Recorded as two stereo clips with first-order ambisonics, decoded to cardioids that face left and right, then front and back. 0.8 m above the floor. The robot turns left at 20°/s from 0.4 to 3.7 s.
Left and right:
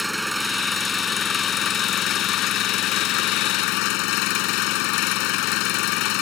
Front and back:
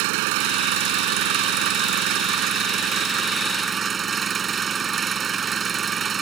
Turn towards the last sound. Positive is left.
turn(degrees=115)